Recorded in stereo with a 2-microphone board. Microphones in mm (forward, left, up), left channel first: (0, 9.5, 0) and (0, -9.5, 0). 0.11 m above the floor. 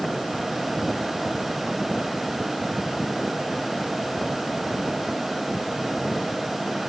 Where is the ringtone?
I don't hear a ringtone.